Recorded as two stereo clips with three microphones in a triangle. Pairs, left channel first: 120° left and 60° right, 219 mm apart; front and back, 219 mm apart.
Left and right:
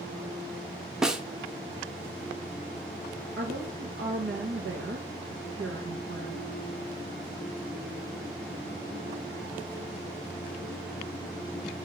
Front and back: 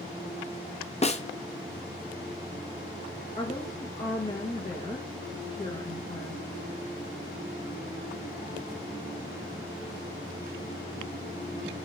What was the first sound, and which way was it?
A snare drum, 25° left.